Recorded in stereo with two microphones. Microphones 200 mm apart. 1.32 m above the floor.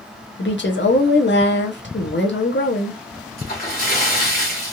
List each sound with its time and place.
0.4 s a woman speaking: 65° left (ahead or behind), 0.7 m
3.4 s a splash: 50° left (ahead or behind), 1.7 m